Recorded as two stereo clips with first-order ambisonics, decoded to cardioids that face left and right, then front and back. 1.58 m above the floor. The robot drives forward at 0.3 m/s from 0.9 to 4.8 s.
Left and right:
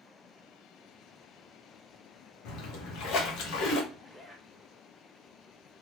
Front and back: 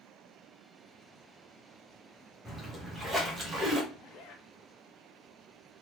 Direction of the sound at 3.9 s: 10° left.